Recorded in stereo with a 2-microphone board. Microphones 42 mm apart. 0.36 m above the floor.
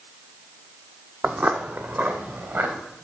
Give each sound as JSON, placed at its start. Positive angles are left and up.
{"t": 1.2, "sound": "footsteps", "side_deg": -45, "distance_m": 0.7}